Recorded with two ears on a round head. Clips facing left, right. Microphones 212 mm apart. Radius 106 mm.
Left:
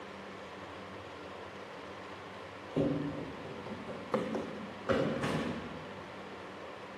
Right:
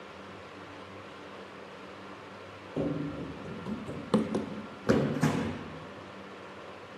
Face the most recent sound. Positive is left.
turn(degrees=-65)  # may be behind; listen again after turning